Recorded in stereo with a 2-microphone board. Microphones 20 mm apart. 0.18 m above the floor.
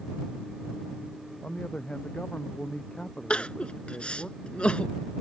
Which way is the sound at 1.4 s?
75° left (ahead or behind).